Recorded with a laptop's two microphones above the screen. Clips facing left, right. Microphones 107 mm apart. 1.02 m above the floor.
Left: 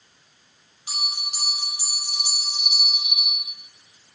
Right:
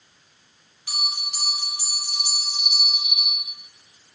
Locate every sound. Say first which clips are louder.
0.9 s a bell: right 1 dB; 20° left (ahead or behind), 7.5 m